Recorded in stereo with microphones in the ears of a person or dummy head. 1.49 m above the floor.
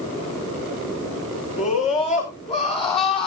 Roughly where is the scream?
Left.